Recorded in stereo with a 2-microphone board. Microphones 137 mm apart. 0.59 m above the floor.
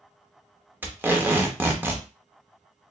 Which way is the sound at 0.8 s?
15° right (ahead or behind).